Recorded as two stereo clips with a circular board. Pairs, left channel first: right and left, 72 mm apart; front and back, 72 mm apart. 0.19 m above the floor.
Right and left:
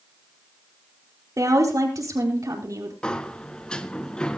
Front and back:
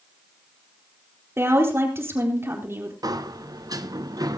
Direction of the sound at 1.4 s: 125° left.